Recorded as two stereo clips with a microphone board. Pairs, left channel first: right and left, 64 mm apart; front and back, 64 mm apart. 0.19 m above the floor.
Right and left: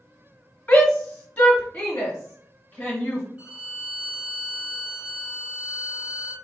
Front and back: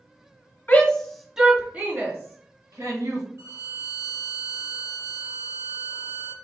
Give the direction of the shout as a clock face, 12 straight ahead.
1 o'clock.